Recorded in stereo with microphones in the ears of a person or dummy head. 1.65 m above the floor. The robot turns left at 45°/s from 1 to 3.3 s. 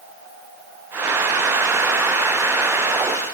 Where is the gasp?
I don't hear a gasp.